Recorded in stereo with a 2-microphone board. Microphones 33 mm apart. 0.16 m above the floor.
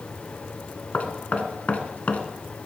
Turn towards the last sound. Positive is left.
turn(degrees=45)  # may be behind; listen again after turning